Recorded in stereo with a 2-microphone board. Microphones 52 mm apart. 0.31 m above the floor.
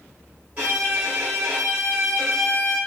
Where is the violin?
35° right (ahead or behind), 2.5 m.